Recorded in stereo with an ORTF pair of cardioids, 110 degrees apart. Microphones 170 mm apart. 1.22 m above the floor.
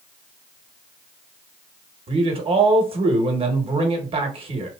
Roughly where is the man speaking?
Ahead right.